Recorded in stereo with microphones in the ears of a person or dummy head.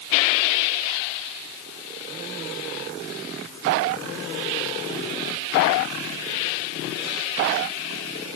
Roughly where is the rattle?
No rattle in this recording.